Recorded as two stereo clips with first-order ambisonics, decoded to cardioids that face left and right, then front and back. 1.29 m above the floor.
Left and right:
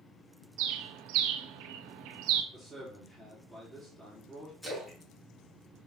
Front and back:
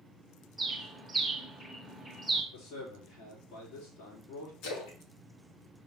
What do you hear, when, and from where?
0.6 s a bird: 95° right, 1.1 m
2.5 s a man speaking: 15° left, 3.5 m
4.6 s a splash: 15° left, 3 m